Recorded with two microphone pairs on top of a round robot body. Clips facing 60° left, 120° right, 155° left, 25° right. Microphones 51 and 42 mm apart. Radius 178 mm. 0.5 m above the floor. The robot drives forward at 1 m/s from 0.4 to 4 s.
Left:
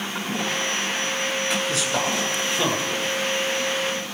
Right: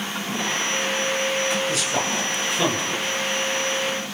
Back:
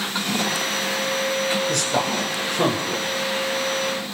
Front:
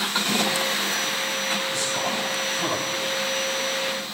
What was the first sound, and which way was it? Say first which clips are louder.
A man speaking: even, back 4 dB; 155° left.